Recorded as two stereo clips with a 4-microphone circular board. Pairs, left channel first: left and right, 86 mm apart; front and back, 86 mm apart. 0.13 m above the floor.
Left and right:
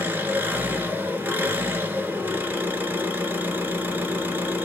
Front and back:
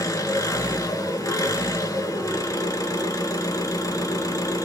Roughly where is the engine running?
Ahead right.